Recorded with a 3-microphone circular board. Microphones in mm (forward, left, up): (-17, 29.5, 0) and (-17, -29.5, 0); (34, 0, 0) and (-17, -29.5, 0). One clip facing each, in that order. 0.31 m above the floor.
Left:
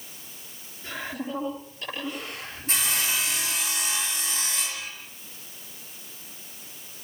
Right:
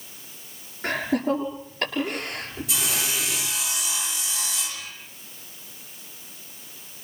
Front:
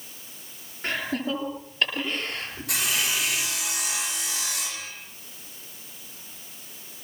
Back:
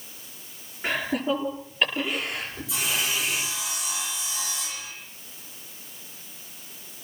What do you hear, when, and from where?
0.8 s laughter: 70° right, 6.5 m
2.7 s sawing: 45° left, 7 m